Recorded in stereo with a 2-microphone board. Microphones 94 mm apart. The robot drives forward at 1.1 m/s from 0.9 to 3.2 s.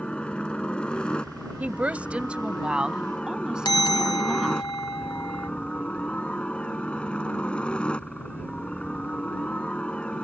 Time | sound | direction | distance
0.0 | a helicopter | 10° left (ahead or behind) | ?
1.6 | a woman speaking | 15° right (ahead or behind) | ?
3.6 | a bell | 45° left (ahead or behind) | ?